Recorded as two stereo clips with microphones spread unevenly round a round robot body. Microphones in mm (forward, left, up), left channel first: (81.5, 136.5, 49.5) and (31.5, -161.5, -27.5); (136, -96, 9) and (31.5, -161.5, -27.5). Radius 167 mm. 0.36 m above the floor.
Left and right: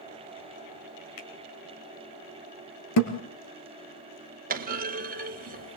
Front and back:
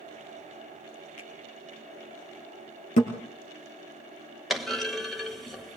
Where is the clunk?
75° right, 1.6 m.